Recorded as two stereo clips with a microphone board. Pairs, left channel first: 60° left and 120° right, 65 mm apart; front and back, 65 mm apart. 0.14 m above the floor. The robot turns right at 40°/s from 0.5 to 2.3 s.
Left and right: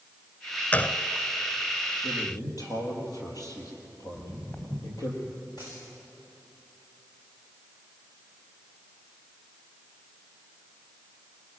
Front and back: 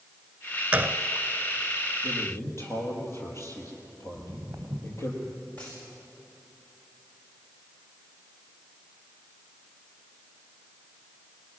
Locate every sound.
0.7 s a gunshot: 115° left, 0.6 m; by 1.0 s 130° left, 0.6 m
2.0 s a man speaking: 30° left, 4.5 m; by 5.1 s 40° left, 4.5 m
4.1 s footsteps: 120° left, 3.5 m
5.6 s a dropped coin: 65° left, 7 m